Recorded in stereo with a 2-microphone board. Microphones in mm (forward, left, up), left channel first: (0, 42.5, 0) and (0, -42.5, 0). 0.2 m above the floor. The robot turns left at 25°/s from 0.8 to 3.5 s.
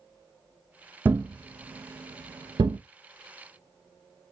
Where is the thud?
25° right (ahead or behind), 0.5 m; by 2.8 s 65° right (ahead or behind), 0.5 m.